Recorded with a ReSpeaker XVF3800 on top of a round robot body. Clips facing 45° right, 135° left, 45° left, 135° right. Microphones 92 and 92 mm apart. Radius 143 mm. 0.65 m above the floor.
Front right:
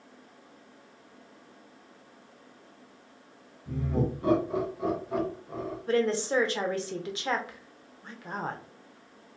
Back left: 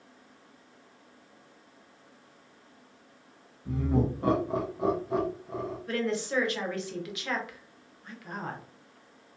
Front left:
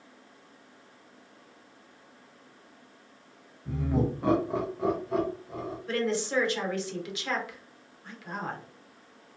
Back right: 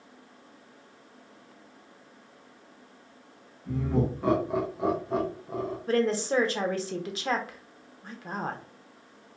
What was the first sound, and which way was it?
Laughter, 120° left.